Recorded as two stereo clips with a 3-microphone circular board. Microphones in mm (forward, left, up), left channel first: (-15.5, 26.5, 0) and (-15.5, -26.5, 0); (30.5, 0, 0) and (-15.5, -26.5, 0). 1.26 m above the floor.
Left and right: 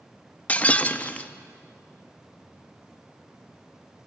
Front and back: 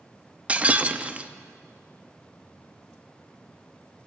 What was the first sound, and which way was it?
Breaking glass, 150° left.